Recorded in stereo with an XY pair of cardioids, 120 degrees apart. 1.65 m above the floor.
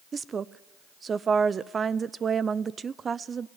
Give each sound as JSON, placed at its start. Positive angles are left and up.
{"t": 0.1, "sound": "a woman speaking", "azimuth_deg": -35, "distance_m": 0.7}